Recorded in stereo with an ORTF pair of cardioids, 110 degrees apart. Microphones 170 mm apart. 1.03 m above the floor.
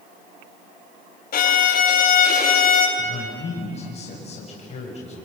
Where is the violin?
55° left, 4.5 m.